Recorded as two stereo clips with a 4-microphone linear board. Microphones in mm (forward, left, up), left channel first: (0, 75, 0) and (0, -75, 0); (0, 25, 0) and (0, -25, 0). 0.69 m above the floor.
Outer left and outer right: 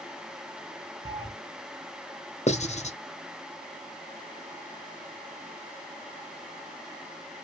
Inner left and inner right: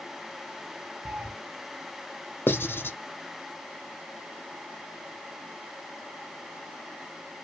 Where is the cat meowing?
30° right (ahead or behind), 0.9 m.